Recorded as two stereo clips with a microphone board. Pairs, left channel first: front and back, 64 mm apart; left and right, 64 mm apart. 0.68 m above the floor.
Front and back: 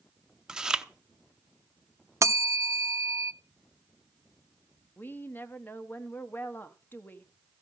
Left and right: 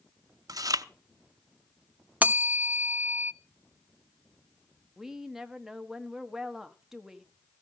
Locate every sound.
0.5 s chewing: 100° right, 0.6 m
2.2 s a bell: 150° right, 0.7 m
5.0 s a woman speaking: 10° right, 1.2 m